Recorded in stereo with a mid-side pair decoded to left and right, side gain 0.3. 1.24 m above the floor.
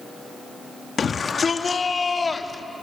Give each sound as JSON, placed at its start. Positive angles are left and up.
{"t": 1.0, "sound": "a shout", "azimuth_deg": 55, "distance_m": 1.9}